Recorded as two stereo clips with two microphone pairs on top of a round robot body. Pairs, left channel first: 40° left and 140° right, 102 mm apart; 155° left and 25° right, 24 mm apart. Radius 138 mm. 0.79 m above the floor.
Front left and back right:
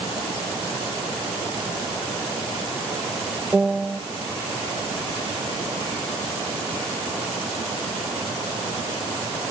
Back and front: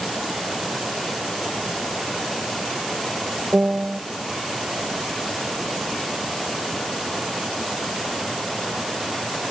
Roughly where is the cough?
I don't hear a cough.